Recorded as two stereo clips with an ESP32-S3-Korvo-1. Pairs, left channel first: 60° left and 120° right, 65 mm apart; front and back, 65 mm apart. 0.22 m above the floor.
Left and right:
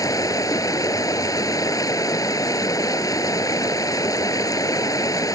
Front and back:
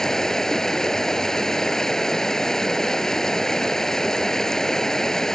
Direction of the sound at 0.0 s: 80° left.